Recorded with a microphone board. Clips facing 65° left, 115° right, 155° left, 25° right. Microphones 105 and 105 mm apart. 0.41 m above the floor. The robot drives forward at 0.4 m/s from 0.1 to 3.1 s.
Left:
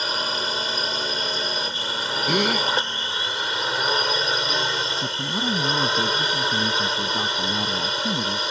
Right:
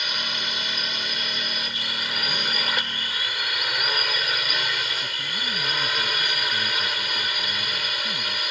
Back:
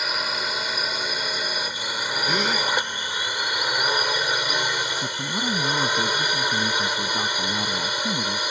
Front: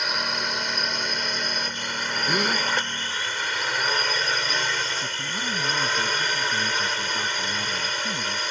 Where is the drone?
70° left; by 8.5 s 90° left.